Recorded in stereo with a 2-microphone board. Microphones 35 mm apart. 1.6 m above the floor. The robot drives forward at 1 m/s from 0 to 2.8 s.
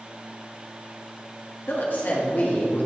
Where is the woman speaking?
70° left (ahead or behind), 2 m; by 2.9 s 50° left (ahead or behind), 2.5 m.